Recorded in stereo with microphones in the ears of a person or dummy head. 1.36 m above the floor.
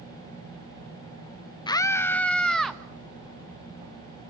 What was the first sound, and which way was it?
A scream, 25° left (ahead or behind).